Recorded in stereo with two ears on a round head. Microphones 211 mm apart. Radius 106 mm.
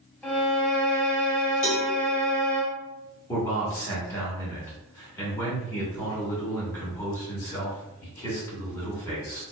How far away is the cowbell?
About 0.8 m.